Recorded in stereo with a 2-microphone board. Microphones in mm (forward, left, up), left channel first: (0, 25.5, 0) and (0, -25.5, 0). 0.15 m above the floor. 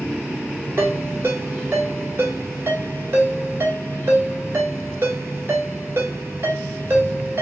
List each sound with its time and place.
0.8 s a ringtone: 55° right (ahead or behind), 1.3 m